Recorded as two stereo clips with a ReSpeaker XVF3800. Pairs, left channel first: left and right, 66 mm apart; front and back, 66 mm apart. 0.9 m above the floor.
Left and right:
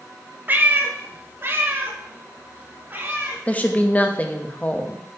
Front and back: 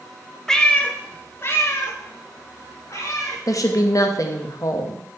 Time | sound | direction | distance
0.5 | a cat meowing | 75° right | 0.6 m
3.5 | a woman speaking | 25° left | 0.8 m